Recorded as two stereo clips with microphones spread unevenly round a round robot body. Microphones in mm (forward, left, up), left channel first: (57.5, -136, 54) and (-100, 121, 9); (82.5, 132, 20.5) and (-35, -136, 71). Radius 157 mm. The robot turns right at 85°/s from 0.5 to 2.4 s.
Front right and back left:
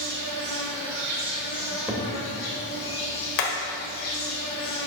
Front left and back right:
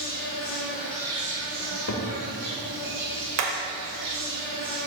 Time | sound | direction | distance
0.0 | an insect | 110° left | 2 m
1.6 | a cupboard door | 15° left | 1.1 m
3.4 | hammering | 80° right | 1.3 m